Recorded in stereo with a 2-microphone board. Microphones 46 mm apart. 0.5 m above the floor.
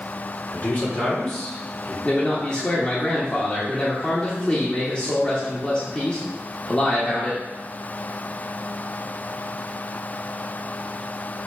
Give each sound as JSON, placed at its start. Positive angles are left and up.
{"t": 0.5, "sound": "a man speaking", "side_deg": 40, "distance_m": 1.9}
{"t": 2.0, "sound": "a man speaking", "side_deg": 25, "distance_m": 1.0}